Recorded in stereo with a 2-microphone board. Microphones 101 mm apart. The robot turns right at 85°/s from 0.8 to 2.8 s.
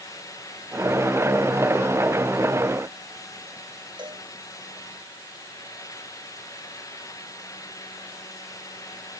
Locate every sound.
4.0 s a cowbell: 50° right (ahead or behind)